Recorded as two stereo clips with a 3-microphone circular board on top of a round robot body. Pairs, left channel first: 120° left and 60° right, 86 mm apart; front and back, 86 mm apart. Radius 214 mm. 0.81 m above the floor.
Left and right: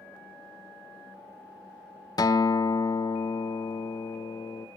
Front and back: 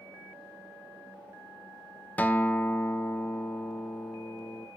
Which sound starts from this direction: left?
A guitar, at 2.2 s.